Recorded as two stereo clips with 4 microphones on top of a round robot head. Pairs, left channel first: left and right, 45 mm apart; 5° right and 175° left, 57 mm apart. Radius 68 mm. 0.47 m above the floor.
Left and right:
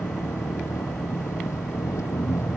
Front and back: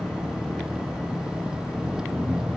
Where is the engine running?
100° left.